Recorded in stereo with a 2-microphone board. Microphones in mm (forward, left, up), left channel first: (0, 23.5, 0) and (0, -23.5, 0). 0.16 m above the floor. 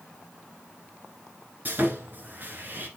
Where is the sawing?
40° right (ahead or behind), 1.8 m.